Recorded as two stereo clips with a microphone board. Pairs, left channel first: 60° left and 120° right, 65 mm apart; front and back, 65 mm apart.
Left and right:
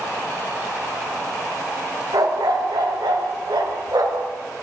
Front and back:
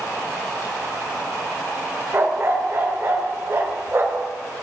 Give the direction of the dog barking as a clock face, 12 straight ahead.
4 o'clock.